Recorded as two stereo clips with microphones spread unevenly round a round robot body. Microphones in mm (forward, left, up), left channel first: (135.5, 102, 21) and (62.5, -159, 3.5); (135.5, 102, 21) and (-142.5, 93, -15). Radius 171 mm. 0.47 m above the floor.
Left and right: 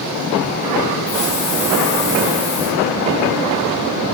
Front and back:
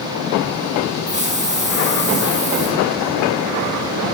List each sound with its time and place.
1.1 s a hiss: 115° left, 3 m